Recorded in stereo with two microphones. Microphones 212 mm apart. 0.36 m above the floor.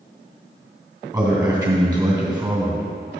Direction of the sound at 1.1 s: 20° right (ahead or behind).